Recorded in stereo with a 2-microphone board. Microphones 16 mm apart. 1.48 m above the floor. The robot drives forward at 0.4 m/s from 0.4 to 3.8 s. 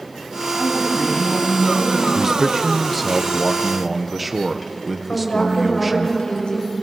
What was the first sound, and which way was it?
A woman speaking, 55° left (ahead or behind).